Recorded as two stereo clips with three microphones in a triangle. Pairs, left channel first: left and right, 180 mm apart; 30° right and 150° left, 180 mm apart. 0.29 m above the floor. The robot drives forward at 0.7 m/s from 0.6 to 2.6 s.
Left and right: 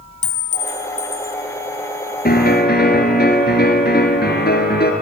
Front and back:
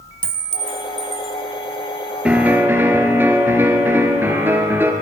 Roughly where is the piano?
Ahead left.